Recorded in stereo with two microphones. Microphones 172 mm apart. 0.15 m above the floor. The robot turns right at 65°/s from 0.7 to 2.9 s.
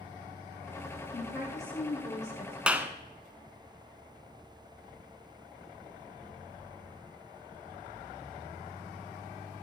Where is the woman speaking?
30° right, 8 m; by 2.6 s 65° left, 8 m.